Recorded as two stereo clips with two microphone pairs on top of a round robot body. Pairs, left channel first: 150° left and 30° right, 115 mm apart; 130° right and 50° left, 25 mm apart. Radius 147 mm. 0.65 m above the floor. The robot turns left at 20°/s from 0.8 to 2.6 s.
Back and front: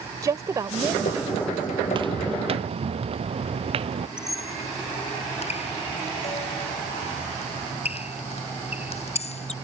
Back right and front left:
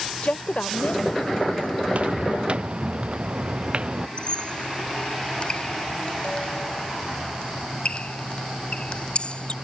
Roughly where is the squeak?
Behind.